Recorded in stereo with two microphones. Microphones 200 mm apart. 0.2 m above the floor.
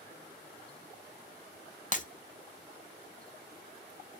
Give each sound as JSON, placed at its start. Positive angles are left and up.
{"t": 1.9, "sound": "breaking glass", "side_deg": 40, "distance_m": 0.5}